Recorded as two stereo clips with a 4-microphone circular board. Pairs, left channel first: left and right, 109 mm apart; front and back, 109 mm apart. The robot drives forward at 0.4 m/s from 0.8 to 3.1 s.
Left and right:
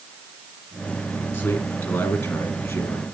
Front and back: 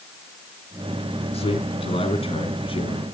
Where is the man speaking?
20° left, 3 m; by 3.0 s 25° left, 2.5 m.